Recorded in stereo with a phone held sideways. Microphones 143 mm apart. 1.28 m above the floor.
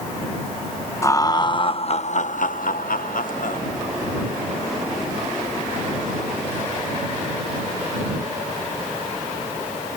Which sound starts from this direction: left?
Laughter, at 1.0 s.